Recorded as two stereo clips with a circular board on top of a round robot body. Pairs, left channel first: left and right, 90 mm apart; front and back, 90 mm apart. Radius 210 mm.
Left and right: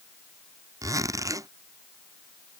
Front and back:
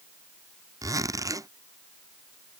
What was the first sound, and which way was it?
A zipper, 135° right.